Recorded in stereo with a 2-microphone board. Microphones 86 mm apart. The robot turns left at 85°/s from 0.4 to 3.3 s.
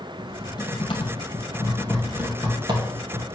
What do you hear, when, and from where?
0.2 s typing on a keyboard: 40° left (ahead or behind), 1.8 m; by 3.2 s 65° right (ahead or behind), 1.8 m